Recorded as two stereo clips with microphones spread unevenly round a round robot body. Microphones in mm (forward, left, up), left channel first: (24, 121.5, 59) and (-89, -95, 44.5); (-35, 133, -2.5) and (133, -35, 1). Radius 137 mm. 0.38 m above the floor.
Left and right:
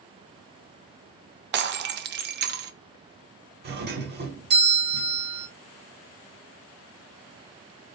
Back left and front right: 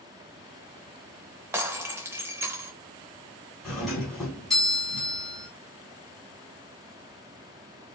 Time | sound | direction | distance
1.5 | breaking glass | 125° right | 0.6 m
3.6 | a doorbell | 135° right | 1.7 m